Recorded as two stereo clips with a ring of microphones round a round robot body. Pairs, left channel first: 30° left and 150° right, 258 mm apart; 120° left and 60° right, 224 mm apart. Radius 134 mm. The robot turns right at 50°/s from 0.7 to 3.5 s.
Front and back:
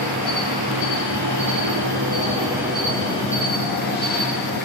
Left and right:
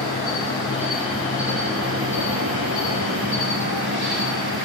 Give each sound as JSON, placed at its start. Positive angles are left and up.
{"t": 0.0, "sound": "an insect", "azimuth_deg": -165, "distance_m": 1.5}